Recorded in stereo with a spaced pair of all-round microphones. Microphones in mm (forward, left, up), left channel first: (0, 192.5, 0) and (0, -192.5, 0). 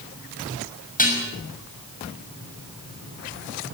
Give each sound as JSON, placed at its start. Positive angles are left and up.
{"t": 1.0, "sound": "dishes clattering", "side_deg": 20, "distance_m": 6.5}